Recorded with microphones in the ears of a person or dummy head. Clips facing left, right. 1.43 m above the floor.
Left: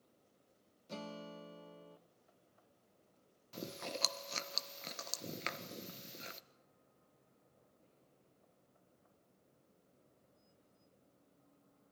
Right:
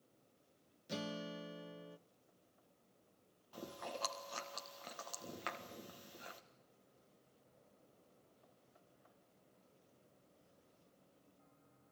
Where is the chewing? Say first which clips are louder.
Left 3 dB; 30° left (ahead or behind), 1.4 m.